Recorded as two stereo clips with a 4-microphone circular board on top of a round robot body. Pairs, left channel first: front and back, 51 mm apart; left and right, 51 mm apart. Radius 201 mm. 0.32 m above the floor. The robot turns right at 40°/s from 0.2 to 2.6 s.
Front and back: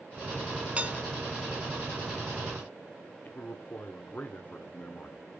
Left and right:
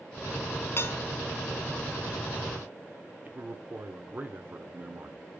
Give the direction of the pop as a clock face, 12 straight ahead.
I don't hear a pop.